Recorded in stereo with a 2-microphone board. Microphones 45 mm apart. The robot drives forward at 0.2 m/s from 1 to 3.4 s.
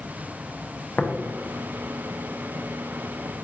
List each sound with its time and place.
1.0 s tapping: 40° left (ahead or behind), 0.6 m; by 1.1 s 45° left (ahead or behind), 0.5 m